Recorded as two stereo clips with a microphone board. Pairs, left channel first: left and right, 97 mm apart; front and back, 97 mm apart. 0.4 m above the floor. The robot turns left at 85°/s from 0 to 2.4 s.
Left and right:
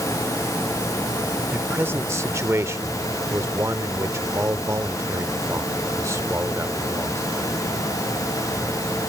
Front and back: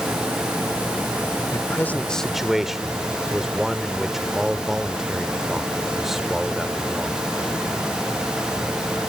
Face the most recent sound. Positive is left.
turn(degrees=-95)